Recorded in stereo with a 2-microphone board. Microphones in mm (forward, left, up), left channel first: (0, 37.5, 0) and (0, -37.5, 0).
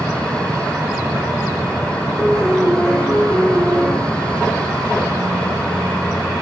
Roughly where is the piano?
Left.